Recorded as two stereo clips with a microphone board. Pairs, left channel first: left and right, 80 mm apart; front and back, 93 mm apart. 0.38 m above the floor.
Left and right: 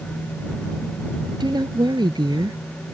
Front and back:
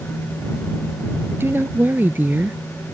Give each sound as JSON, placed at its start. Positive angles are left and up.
{"t": 1.4, "sound": "a woman speaking", "azimuth_deg": -115}